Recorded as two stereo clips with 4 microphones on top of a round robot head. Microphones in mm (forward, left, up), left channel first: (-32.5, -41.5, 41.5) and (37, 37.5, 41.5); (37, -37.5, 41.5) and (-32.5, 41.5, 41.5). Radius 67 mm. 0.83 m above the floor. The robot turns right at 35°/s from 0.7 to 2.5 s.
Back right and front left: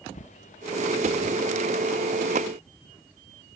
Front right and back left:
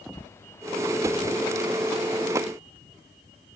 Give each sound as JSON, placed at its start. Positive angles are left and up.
{"t": 0.1, "sound": "a bird", "azimuth_deg": -115}